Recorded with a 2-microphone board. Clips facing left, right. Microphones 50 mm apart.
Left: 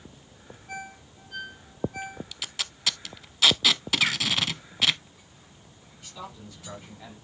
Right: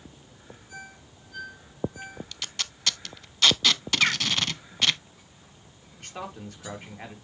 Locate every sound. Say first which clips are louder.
0.7 s a ringtone: left 6 dB; 75° left (ahead or behind), 2.5 m
2.3 s tape being pulled: even; centre (ahead or behind), 0.5 m
4.0 s a bird: right 3 dB; 15° right (ahead or behind), 0.5 m
6.0 s a man speaking: right 4 dB; 55° right (ahead or behind), 3.5 m